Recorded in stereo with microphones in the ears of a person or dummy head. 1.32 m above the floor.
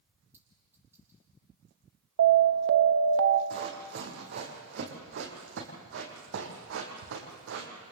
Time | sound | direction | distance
0.3 | a clink | 10° right (ahead or behind) | 8 m
2.2 | an alarm | 70° right (ahead or behind) | 1.1 m
3.5 | running footsteps | 55° right (ahead or behind) | 4.5 m